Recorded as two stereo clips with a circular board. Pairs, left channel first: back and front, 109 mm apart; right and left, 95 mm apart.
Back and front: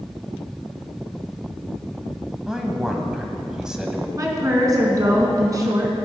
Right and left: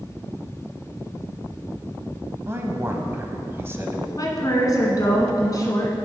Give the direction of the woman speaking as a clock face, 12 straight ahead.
2 o'clock.